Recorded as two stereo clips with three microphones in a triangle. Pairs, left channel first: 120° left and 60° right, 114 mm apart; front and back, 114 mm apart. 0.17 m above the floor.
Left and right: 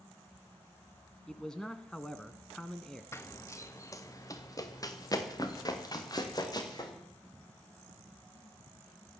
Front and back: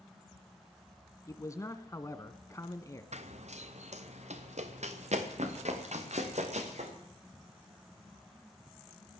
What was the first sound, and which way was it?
A man speaking, 40° left.